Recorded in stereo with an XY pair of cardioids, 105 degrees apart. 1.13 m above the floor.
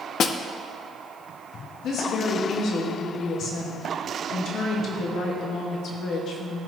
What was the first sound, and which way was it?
A snare drum, 60° left.